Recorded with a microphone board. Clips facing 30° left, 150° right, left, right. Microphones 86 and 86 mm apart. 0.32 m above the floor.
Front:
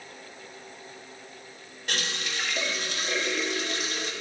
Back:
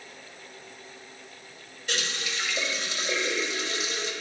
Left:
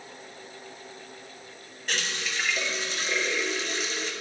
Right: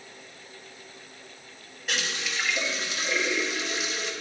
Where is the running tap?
5° right, 1.3 m.